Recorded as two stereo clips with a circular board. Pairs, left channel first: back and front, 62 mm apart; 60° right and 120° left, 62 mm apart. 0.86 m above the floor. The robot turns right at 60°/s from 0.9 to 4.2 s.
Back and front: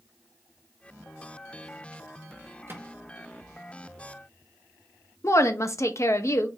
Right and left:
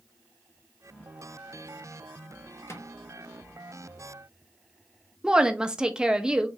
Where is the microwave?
35° right, 0.9 m; by 2.9 s 20° right, 0.9 m.